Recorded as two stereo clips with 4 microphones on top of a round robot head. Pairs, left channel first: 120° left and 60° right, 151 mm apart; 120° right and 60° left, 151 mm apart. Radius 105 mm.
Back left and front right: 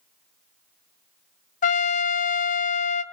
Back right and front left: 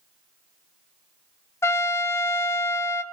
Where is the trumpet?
165° left, 0.6 m.